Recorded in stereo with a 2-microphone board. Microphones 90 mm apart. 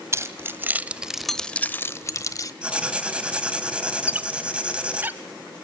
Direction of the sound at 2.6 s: 15° right (ahead or behind).